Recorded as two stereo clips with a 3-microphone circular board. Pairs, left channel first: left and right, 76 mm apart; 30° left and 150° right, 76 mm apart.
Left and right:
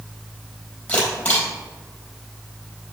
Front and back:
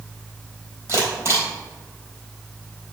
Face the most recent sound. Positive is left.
turn(degrees=160)